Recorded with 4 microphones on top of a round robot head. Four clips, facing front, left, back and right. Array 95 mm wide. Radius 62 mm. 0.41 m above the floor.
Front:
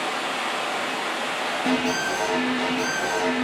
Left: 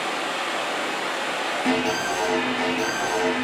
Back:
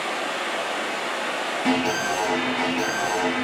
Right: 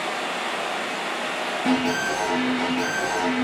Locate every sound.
0.0 s running water: 30° left, 1.6 m
1.6 s an alarm: 175° left, 1.4 m